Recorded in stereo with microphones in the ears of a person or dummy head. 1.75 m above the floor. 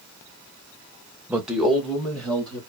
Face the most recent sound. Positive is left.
turn(degrees=5)  # may be behind; listen again after turning